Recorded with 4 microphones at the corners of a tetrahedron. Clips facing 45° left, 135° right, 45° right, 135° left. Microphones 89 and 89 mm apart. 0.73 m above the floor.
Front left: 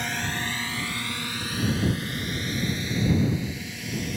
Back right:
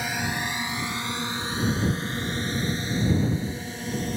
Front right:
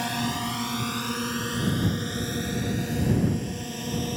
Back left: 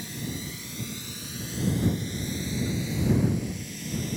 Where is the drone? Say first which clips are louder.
Back right 1 dB, front right 8 dB; 50° right; by 4.2 s 80° right.